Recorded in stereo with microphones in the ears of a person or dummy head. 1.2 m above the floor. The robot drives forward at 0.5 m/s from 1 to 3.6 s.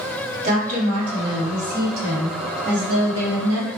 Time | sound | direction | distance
0.4 | a woman speaking | 45° right (ahead or behind) | 1.8 m